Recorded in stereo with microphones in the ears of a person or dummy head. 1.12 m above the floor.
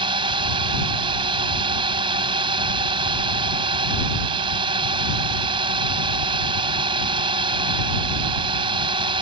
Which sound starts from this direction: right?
A drone, at 0.0 s.